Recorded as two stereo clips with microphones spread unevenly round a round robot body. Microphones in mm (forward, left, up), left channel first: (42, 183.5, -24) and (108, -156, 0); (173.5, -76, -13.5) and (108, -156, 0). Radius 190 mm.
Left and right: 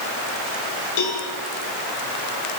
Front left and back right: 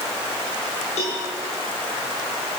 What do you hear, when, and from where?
1.0 s a cowbell: 70° left, 8.5 m